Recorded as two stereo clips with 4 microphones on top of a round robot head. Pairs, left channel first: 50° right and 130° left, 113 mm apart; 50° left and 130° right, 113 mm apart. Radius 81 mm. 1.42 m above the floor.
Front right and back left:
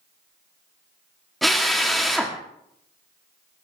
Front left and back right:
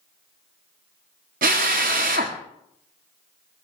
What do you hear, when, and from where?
1.4 s a drill: 140° right, 1.5 m